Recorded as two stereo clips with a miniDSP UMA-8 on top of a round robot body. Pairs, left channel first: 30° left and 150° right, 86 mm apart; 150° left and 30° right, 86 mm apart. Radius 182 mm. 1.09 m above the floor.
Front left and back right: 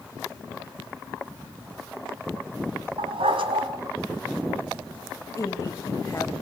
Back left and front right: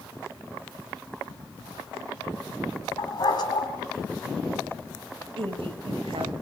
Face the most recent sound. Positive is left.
turn(degrees=-30)